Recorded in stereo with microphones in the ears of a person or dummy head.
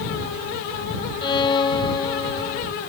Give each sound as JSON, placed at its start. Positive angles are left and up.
{"t": 1.2, "sound": "a violin", "side_deg": 25}